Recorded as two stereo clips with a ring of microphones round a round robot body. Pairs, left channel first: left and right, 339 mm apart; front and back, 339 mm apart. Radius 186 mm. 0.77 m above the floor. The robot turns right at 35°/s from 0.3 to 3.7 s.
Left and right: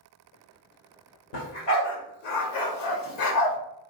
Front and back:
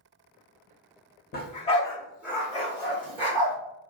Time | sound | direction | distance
1.3 | a dog barking | 60° left | 1.5 m